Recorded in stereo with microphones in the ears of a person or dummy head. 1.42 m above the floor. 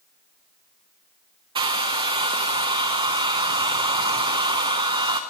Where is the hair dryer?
25° right (ahead or behind), 0.9 m.